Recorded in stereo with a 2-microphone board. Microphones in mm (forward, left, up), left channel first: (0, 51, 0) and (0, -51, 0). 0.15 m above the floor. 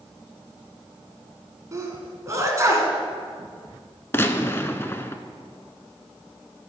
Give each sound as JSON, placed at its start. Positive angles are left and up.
{"t": 1.7, "sound": "a sneeze", "side_deg": -30, "distance_m": 1.6}
{"t": 4.1, "sound": "a gunshot", "side_deg": 25, "distance_m": 0.5}